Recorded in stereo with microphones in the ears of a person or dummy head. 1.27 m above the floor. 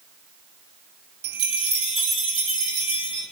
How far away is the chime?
About 2.5 m.